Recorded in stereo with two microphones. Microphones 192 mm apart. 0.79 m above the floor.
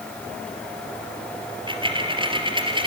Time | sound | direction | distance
1.5 | a dropped coin | 25° right (ahead or behind) | 3 m